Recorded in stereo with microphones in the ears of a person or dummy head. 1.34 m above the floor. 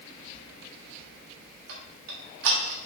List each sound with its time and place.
1.7 s ticking: 70° right (ahead or behind), 1.5 m